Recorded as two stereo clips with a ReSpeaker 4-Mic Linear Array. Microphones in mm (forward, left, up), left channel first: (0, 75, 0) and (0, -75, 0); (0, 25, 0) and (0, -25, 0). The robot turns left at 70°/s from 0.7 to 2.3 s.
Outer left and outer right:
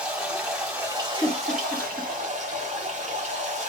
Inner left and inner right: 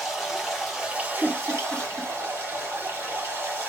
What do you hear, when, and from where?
0.0 s running water: 5° right, 2.5 m; by 3.7 s 120° right, 2.5 m
1.2 s a giggle: 20° left (ahead or behind), 1.3 m; by 2.1 s 15° right (ahead or behind), 1.3 m